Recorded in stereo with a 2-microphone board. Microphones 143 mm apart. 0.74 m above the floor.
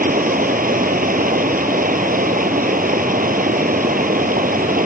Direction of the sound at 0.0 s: 80° right.